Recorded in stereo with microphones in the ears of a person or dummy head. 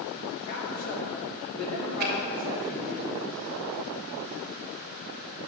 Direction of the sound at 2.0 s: 45° right (ahead or behind).